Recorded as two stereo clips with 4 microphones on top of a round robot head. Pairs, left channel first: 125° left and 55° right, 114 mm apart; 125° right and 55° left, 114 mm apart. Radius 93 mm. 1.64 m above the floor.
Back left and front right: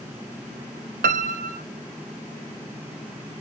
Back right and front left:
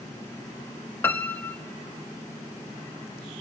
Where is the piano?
50° right, 0.5 m.